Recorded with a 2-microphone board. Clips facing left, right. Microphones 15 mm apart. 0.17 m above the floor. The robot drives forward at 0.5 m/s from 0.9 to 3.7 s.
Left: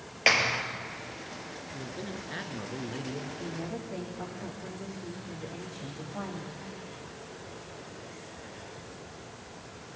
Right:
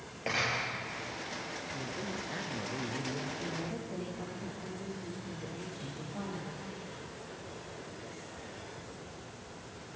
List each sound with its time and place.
0.3 s a clap: 70° left (ahead or behind), 2.5 m
1.7 s a man speaking: 20° left (ahead or behind), 2.5 m; by 3.3 s 25° left (ahead or behind), 1.7 m
3.4 s a woman speaking: 20° left (ahead or behind), 7.5 m